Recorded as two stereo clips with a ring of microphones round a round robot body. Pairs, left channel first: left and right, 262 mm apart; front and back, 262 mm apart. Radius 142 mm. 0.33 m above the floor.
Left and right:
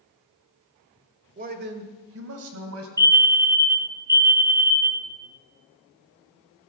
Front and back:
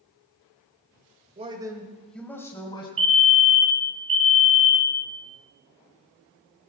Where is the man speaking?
125° right, 1.6 m; by 2.9 s 70° right, 2.5 m.